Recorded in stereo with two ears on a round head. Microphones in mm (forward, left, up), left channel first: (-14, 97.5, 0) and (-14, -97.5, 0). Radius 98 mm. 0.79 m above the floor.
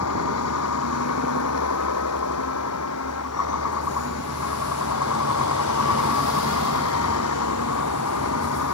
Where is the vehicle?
90° left.